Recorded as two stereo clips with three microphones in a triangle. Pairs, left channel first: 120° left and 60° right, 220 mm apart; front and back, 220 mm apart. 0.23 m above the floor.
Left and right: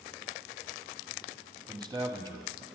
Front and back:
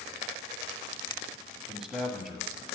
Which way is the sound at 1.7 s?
95° right.